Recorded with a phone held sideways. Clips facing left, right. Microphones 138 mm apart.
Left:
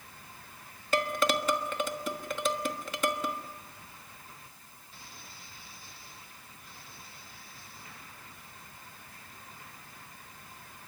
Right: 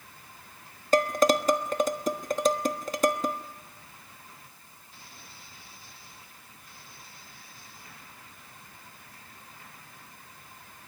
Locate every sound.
0.9 s dishes clattering: 40° right (ahead or behind), 1.2 m